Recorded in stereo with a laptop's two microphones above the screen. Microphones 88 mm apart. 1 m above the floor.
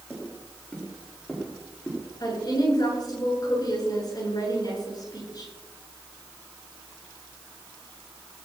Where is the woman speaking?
45° left (ahead or behind), 8 m.